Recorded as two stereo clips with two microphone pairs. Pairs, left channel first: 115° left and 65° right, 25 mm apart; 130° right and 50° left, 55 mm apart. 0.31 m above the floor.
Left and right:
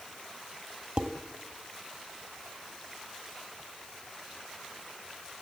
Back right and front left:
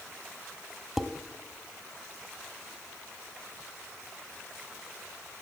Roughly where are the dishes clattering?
Ahead right.